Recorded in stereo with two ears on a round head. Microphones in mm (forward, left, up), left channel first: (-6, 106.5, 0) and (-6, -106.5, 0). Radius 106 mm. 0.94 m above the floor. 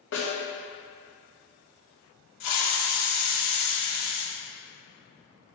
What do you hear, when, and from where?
0.1 s a snare drum: 55° left (ahead or behind), 2.5 m
2.4 s a hiss: 75° left (ahead or behind), 1.3 m